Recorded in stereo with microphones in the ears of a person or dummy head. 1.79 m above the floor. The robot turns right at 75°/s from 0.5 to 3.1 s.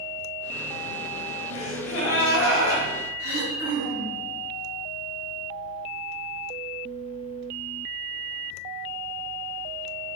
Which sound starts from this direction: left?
Throat clearing, at 3.2 s.